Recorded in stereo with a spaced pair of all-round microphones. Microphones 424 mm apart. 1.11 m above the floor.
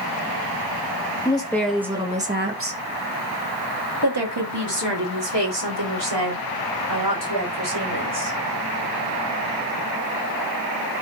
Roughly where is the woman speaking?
Centre.